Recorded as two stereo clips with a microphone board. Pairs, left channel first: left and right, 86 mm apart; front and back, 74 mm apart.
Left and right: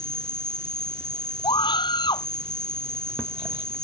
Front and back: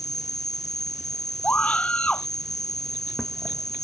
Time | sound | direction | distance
0.0 | an insect | 30° right | ?
1.4 | a scream | 70° left | ?